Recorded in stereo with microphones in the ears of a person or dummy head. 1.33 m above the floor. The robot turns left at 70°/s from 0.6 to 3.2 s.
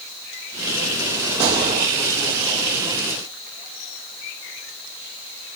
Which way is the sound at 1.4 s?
15° right (ahead or behind).